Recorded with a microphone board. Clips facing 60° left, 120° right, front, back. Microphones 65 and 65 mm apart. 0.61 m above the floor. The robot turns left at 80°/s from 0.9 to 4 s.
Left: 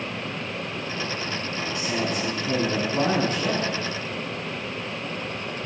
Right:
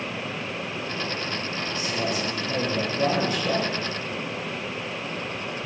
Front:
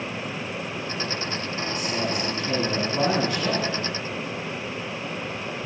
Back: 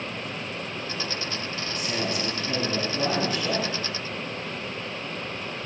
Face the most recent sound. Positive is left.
turn(degrees=-45)